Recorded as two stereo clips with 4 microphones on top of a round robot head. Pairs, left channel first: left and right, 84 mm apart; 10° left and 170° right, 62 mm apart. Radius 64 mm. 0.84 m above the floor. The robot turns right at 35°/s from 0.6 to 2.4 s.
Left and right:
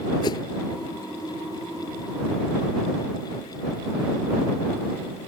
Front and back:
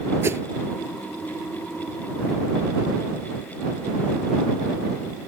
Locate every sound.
0.2 s a whoosh: 140° left